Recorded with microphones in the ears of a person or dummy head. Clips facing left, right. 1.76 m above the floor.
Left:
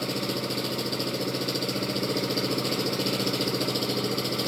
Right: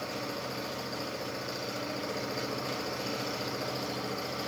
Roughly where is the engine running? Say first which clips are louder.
Left 7 dB; left.